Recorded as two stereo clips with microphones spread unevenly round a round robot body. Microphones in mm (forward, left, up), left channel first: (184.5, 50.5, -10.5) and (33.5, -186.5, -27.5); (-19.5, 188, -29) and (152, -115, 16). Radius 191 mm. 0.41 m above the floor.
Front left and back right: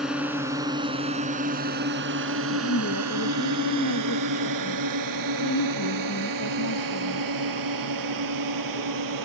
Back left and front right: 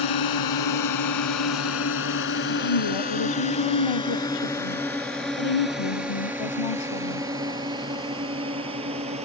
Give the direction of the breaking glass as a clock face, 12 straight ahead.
No breaking glass in this recording.